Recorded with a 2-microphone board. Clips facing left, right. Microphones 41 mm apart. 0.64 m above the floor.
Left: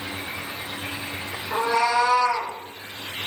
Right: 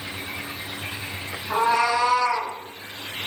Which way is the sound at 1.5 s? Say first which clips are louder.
Right 1 dB; 55° right (ahead or behind).